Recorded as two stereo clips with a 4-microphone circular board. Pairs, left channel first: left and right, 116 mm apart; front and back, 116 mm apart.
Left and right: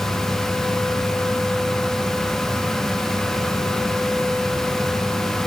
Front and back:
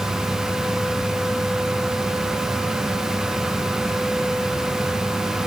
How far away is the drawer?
I don't hear a drawer.